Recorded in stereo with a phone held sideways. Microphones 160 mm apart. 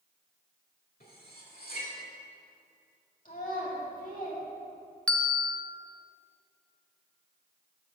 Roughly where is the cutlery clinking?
Left.